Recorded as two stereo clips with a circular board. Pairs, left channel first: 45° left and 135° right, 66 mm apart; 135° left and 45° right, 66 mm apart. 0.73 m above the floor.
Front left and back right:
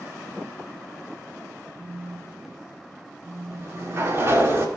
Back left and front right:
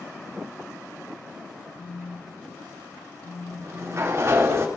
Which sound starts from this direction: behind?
A phone buzzing, at 1.8 s.